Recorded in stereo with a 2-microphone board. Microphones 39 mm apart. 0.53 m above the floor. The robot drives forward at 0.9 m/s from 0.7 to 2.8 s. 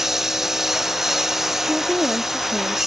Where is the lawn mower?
10° right (ahead or behind).